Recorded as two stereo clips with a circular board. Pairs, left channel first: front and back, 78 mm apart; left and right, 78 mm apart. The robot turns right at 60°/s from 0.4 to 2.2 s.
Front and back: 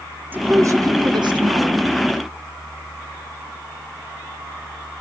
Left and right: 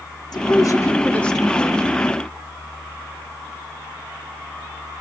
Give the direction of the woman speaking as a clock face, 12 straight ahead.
8 o'clock.